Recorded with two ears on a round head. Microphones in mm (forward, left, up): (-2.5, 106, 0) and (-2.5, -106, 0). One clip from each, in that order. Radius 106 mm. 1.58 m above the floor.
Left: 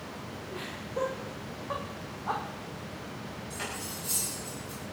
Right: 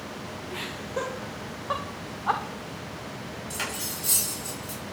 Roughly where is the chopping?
No chopping in this recording.